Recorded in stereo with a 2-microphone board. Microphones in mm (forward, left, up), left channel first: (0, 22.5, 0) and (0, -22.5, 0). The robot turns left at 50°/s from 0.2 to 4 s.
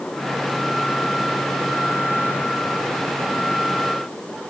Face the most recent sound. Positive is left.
No sound to turn to.